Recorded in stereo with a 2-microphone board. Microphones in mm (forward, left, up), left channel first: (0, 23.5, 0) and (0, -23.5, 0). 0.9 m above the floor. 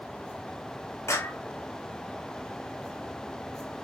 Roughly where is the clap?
Left.